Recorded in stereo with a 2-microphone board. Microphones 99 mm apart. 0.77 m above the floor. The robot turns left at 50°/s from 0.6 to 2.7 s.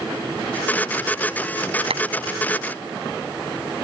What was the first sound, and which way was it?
A clap, 80° right.